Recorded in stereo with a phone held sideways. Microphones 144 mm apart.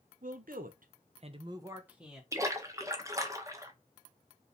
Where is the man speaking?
70° right (ahead or behind), 1.0 m; by 2.2 s centre (ahead or behind), 1.1 m.